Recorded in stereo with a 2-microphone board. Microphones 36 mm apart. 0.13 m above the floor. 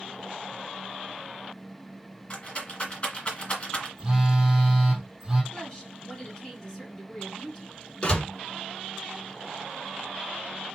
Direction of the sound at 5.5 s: 20° left (ahead or behind).